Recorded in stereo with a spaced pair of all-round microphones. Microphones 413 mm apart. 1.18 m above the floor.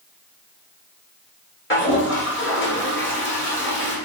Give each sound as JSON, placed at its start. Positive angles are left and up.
{"t": 1.7, "sound": "a toilet flushing", "side_deg": 30, "distance_m": 1.1}